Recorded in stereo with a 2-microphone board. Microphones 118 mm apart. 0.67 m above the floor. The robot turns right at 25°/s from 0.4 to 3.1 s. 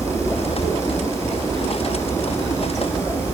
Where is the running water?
80° right, 2 m; by 3.3 s 15° right, 2 m.